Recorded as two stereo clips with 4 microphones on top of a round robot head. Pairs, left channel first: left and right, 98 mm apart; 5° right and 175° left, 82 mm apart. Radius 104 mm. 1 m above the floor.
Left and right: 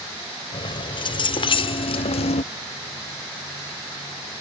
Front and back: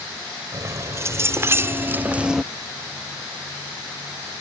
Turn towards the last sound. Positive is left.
turn(degrees=90)